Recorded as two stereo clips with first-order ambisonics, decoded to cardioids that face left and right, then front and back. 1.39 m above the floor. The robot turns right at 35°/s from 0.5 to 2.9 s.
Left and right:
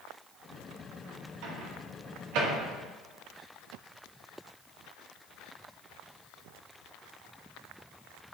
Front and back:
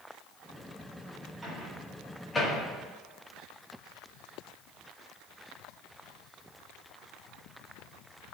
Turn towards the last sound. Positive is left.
turn(degrees=-60)